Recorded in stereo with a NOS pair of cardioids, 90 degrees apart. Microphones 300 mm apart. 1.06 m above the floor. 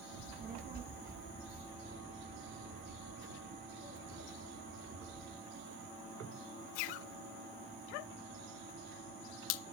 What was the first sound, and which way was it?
A child speaking, 20° right.